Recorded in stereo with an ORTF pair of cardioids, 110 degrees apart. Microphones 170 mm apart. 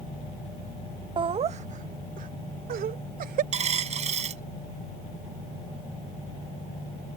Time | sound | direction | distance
1.2 | laughter | 30° right | ?
3.5 | a dropped coin | 45° right | ?